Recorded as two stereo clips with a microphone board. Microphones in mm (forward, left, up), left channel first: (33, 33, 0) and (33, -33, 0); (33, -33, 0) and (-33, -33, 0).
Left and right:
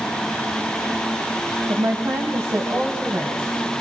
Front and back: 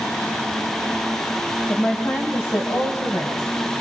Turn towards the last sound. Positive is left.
turn(degrees=-30)